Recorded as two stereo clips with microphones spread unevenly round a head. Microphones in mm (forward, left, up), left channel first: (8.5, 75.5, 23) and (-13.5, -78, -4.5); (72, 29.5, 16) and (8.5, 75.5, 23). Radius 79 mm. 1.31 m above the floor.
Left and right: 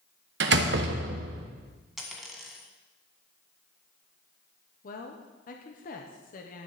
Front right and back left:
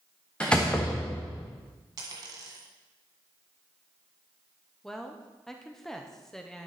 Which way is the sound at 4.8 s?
45° left.